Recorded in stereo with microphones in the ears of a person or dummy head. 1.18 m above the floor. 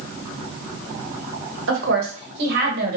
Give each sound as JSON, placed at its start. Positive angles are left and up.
{"t": 1.7, "sound": "a woman speaking", "side_deg": -75, "distance_m": 1.3}